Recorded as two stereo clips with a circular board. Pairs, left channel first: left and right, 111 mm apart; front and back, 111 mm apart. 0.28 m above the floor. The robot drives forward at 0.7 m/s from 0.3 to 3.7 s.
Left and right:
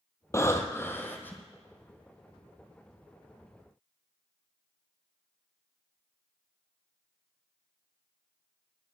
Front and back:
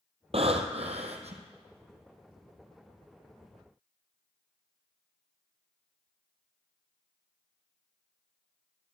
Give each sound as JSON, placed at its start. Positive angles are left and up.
{"t": 0.3, "sound": "breathing", "azimuth_deg": 155, "distance_m": 1.3}